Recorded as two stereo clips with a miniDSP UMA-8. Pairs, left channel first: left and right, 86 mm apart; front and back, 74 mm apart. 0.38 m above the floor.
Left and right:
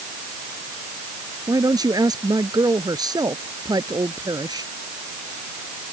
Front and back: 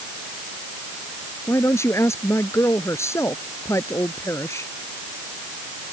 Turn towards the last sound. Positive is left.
turn(degrees=-50)